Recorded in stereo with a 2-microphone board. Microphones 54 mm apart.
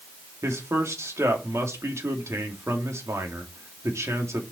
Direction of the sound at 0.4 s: 65° right (ahead or behind).